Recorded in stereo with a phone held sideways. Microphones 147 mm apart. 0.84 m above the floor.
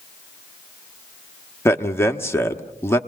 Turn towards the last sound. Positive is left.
turn(degrees=15)  # may be behind; listen again after turning